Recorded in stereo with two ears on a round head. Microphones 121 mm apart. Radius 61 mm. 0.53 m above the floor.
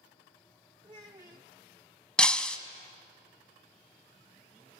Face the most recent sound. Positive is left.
turn(degrees=5)  # may be behind; listen again after turning